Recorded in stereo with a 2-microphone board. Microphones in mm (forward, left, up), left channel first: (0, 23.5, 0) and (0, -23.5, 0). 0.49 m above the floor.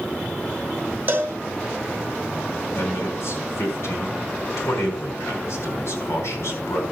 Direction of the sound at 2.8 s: 70° left (ahead or behind).